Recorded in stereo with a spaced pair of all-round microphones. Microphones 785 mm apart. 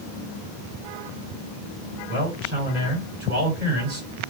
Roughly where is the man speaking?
Right.